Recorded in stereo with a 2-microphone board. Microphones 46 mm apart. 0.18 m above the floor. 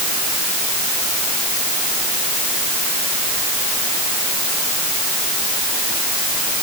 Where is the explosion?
I don't hear an explosion.